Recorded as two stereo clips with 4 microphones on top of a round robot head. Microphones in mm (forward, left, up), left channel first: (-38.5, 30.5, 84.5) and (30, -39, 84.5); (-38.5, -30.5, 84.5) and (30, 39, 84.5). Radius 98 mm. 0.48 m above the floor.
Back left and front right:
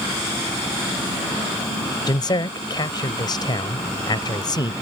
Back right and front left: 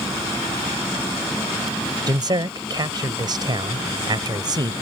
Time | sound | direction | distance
2.1 | a man speaking | 90° left | ?